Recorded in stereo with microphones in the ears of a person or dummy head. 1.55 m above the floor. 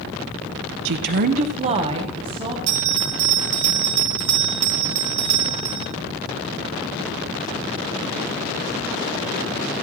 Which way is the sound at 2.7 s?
70° right (ahead or behind).